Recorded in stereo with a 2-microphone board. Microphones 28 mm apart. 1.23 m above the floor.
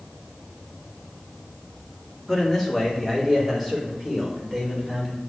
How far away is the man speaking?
About 3.5 m.